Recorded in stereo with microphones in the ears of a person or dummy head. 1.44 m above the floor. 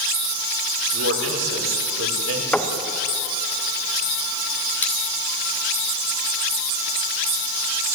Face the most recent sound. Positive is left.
turn(degrees=15)  # may be behind; listen again after turning